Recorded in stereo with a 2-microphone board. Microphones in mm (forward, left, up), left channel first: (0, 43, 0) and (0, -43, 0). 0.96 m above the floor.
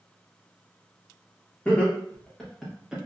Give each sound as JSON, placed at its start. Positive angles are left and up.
{"t": 1.6, "sound": "laughter", "side_deg": 15, "distance_m": 1.1}